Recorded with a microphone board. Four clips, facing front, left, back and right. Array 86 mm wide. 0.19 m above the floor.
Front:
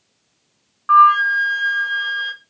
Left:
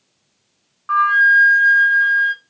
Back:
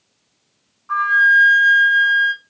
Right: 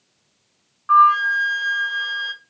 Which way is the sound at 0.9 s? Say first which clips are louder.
Even, front 4 dB; 5° left.